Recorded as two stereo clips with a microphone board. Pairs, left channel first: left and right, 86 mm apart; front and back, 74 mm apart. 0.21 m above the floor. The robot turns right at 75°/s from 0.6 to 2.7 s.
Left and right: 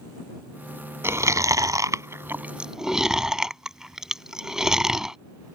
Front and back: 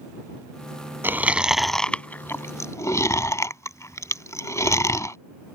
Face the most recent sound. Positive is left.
turn(degrees=-10)